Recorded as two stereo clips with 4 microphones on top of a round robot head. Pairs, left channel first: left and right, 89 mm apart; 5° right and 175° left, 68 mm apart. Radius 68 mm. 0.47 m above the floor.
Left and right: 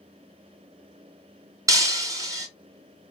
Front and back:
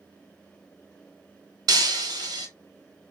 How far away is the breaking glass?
About 0.9 m.